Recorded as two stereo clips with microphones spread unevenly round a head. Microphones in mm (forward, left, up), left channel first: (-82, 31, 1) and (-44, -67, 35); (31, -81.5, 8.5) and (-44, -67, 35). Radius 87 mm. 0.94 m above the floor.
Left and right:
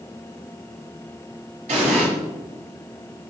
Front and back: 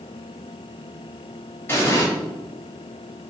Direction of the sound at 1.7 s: 70° right.